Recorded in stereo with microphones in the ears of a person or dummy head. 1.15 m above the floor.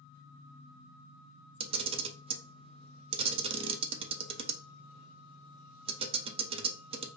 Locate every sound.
1.6 s a camera shutter: 30° right (ahead or behind), 0.6 m